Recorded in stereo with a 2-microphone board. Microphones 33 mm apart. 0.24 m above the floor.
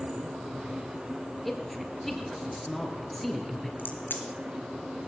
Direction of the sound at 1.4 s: 5° left (ahead or behind).